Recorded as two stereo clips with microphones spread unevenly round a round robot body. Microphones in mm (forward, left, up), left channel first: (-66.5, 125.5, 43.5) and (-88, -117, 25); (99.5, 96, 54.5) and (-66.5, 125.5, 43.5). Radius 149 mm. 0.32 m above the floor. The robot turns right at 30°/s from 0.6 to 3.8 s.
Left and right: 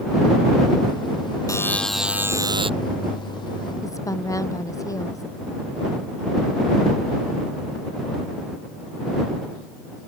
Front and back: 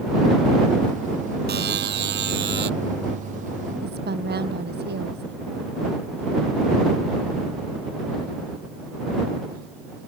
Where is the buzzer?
160° left; by 2.7 s 160° right.